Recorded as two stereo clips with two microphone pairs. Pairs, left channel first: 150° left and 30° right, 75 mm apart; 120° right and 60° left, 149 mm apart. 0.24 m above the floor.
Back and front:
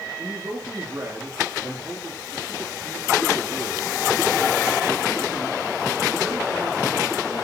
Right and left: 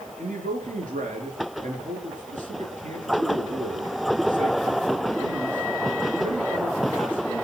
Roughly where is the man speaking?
Ahead left.